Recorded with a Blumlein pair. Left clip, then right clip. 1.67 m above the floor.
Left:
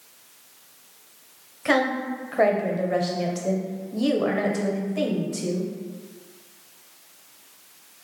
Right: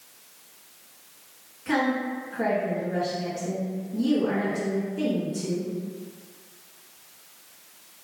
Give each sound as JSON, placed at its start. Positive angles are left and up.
{"t": 1.6, "sound": "a woman speaking", "azimuth_deg": 45, "distance_m": 1.1}